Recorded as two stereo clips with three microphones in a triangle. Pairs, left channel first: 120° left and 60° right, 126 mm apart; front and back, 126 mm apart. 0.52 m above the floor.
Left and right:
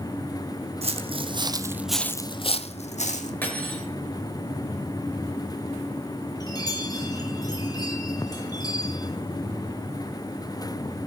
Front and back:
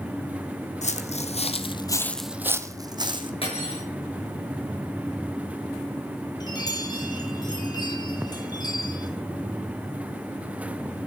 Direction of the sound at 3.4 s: 45° left.